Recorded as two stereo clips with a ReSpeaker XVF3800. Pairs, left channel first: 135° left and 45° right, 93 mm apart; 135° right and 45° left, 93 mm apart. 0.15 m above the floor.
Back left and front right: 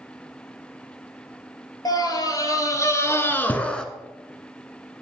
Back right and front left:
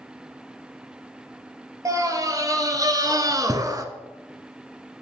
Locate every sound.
1.9 s a scream: 95° left, 2.5 m; by 3.9 s 60° left, 1.2 m